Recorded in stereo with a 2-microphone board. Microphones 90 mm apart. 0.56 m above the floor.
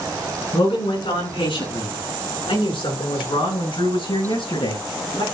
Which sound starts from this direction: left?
A man speaking, at 0.5 s.